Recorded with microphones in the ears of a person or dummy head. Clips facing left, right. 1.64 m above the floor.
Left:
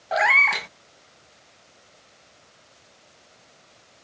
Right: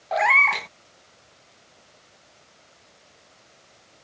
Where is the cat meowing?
10° left (ahead or behind).